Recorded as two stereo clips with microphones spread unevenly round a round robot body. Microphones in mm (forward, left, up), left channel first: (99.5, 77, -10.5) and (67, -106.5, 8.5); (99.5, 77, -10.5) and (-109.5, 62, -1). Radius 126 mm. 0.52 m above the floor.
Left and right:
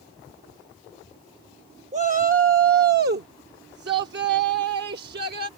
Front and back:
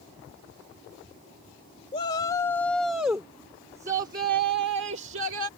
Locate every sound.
1.9 s a shout: 55° right; by 5.5 s 150° right